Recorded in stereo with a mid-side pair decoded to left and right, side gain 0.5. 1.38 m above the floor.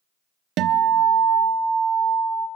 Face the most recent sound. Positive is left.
turn(degrees=-70)